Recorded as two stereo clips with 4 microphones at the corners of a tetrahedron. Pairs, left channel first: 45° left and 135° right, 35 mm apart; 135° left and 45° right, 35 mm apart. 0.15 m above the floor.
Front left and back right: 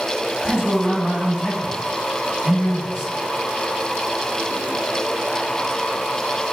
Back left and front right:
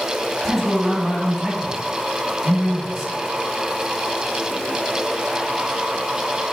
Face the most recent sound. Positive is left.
turn(degrees=-140)